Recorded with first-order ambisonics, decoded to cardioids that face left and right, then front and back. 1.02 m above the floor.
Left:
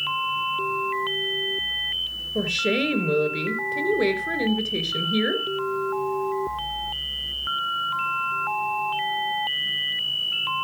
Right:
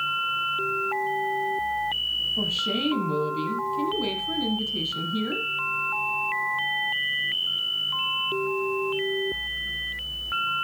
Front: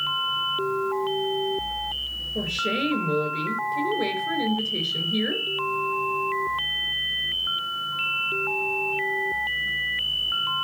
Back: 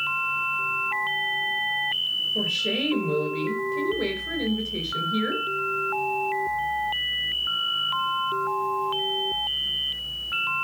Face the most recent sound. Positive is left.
turn(degrees=90)